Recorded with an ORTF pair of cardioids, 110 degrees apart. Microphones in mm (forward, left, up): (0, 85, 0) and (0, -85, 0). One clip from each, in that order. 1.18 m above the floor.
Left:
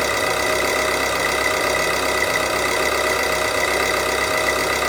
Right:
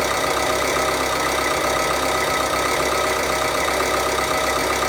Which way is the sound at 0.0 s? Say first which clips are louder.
Even; 10° left.